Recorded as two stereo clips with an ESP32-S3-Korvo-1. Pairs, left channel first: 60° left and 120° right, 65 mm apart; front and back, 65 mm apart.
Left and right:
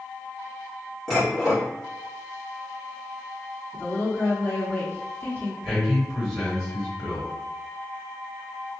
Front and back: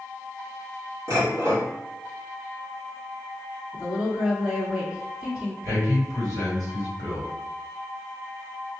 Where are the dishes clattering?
145° left, 1.6 m.